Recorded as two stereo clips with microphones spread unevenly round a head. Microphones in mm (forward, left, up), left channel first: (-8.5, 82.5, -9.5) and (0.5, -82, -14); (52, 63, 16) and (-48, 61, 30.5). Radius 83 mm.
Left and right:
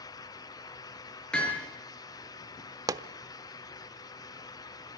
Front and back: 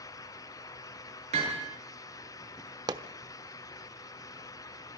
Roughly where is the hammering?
Behind.